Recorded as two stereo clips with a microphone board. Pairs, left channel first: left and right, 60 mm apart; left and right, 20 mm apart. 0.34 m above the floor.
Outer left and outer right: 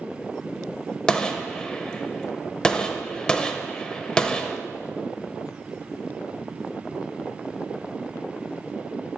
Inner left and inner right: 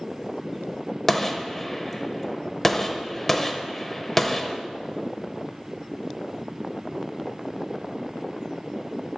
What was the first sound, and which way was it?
A gunshot, 15° left (ahead or behind).